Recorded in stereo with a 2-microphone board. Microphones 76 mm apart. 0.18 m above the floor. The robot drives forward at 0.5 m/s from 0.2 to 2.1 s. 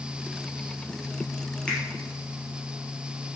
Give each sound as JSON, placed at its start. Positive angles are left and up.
{"t": 1.7, "sound": "a finger snap", "side_deg": 10, "distance_m": 3.5}